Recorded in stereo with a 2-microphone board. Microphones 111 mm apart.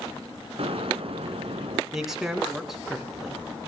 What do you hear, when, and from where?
0.6 s an explosion: 60° right (ahead or behind), 2 m
1.9 s a man speaking: 5° right (ahead or behind), 2.5 m